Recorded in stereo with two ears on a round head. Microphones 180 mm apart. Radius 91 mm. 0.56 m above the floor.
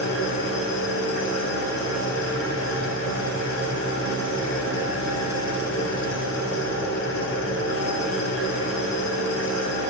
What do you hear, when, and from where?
0.0 s an engine running: 80° left, 2.5 m